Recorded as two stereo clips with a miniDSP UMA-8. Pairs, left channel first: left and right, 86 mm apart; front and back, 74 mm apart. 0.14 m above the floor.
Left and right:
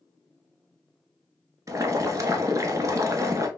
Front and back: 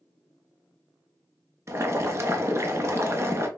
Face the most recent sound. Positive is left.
turn(degrees=-135)